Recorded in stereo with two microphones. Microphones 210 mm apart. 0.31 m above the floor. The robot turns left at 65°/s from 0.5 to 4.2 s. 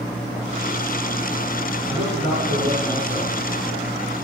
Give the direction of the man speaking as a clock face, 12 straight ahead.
3 o'clock.